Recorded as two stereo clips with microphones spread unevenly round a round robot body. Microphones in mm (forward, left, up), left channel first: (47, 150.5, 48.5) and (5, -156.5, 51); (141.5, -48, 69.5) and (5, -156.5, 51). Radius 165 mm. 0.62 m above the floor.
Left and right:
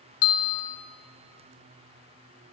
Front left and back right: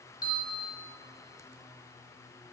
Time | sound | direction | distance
0.2 | a bell | 115° left | 1.1 m